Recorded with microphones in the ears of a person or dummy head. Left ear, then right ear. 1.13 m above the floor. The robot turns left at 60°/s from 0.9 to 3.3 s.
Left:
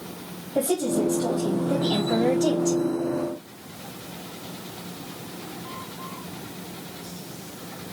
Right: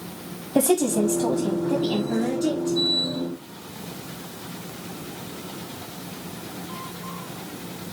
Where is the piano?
I don't hear a piano.